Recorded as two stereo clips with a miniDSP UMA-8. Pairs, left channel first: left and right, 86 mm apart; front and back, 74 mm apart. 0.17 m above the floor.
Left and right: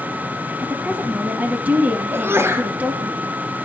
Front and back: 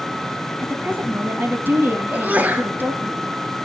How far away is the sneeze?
About 1.4 m.